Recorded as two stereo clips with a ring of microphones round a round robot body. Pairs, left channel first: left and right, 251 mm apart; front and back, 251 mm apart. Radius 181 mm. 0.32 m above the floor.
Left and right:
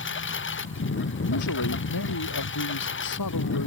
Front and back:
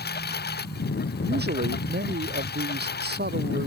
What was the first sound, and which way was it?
A lawn mower, 50° left.